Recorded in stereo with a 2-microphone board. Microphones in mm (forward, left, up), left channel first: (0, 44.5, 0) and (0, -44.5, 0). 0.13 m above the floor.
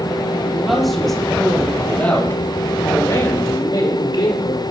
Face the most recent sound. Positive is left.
turn(degrees=65)  # may be behind; listen again after turning